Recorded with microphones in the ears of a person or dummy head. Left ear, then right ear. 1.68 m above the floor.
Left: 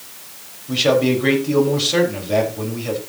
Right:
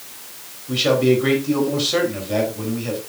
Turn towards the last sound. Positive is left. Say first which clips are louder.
# left 1 dB
turn(degrees=0)  # may be behind; listen again after turning